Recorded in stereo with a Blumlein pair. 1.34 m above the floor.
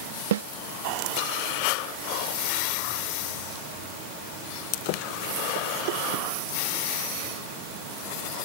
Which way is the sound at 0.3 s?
60° right.